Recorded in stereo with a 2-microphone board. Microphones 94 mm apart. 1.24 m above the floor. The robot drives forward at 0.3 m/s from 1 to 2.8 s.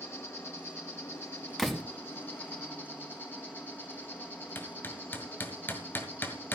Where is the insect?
25° left (ahead or behind), 2.5 m; by 6.6 s 20° left (ahead or behind), 3 m.